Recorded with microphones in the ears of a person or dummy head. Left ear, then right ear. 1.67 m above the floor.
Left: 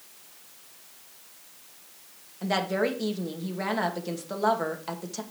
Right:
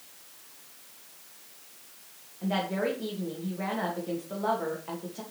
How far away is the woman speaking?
About 2.5 m.